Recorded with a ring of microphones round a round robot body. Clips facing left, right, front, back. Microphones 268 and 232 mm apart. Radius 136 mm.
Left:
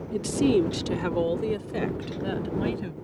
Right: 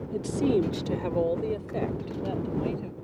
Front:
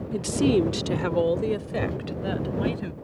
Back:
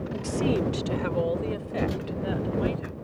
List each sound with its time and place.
0.1 s a woman speaking: 20° left; by 3.0 s 30° left